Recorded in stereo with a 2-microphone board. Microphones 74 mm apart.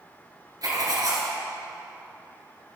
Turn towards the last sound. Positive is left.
turn(degrees=-55)  # may be behind; listen again after turning